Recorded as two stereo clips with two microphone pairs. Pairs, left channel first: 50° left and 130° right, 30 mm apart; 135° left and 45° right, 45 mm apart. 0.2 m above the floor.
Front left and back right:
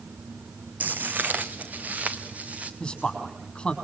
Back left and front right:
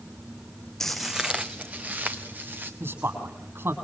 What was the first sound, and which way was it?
Footsteps, 145° right.